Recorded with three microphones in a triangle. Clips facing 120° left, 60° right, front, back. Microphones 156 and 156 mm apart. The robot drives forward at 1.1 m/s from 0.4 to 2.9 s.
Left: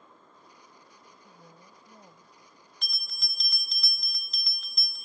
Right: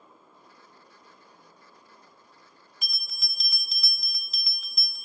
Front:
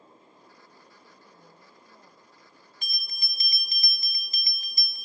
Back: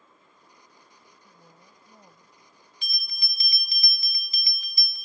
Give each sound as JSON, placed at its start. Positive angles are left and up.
{"t": 1.2, "sound": "a woman speaking", "azimuth_deg": 85}
{"t": 2.8, "sound": "a bell", "azimuth_deg": 20}